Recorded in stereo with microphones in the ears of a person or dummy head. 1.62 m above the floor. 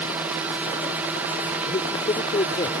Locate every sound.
0.0 s a drone: 10° right (ahead or behind)
1.7 s a man speaking: 25° left (ahead or behind)